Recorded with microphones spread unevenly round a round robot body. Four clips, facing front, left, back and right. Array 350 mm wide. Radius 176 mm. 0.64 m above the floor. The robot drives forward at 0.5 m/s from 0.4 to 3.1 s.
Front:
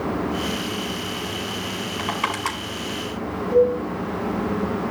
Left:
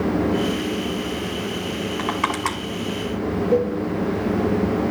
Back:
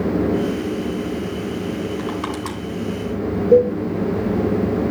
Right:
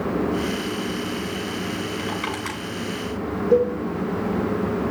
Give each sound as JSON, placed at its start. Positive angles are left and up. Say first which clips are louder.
{"t": 2.0, "sound": "crushing", "louder": "left 5 dB, back 1 dB", "azimuth_deg": 55, "distance_m": 5.5}
{"t": 3.5, "sound": "a cowbell", "louder": "right 3 dB, back 4 dB", "azimuth_deg": -165, "distance_m": 6.5}